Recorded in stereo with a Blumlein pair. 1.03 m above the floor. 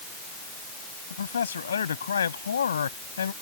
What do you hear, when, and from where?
1.1 s a man speaking: 70° left